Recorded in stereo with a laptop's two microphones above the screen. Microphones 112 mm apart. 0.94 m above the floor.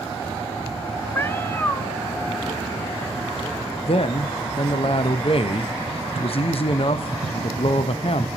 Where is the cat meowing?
20° left (ahead or behind), 0.6 m.